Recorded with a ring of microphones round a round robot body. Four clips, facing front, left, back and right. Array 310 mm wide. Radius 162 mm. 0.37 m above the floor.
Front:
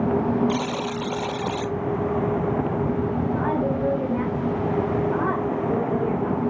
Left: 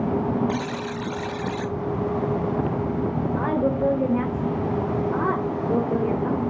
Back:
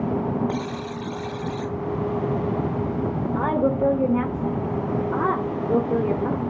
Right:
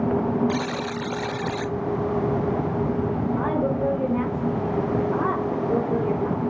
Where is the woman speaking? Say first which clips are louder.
Left 2 dB, back 6 dB; 170° left, 1.2 m.